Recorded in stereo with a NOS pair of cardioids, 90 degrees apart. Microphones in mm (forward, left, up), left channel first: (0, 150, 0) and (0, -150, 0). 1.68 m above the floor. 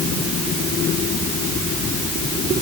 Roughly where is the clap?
No clap in this recording.